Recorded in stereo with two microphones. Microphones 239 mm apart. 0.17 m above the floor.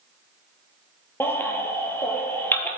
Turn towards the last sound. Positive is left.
turn(degrees=10)  # may be behind; listen again after turning